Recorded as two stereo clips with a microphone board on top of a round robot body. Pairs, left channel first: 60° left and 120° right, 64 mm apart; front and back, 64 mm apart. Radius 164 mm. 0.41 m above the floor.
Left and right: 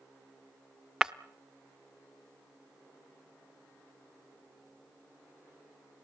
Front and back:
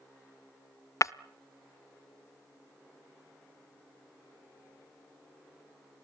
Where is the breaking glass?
40° right, 0.5 m.